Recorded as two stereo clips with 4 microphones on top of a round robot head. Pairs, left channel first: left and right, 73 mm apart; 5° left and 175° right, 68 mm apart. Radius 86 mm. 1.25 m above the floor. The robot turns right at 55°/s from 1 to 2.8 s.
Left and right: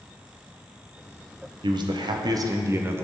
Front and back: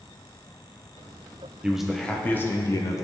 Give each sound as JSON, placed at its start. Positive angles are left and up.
{"t": 1.6, "sound": "a man speaking", "azimuth_deg": -95, "distance_m": 0.9}